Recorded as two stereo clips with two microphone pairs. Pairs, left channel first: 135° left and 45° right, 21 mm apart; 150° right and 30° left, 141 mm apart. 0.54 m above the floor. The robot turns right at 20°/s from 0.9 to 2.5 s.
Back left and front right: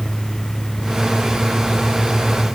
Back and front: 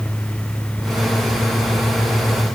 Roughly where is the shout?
No shout in this recording.